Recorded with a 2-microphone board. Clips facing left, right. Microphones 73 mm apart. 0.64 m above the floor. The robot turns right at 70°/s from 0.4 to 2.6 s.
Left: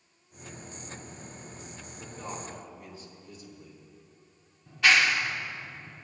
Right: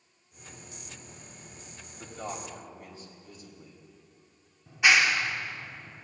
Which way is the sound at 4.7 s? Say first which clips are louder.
Even; 15° right (ahead or behind).